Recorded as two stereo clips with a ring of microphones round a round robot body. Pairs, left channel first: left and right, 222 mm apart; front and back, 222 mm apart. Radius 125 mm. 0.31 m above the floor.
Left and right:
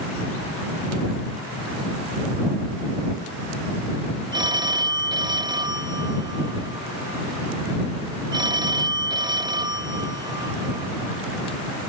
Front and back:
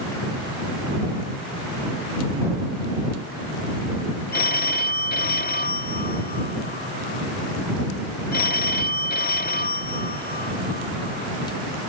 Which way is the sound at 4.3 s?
25° right.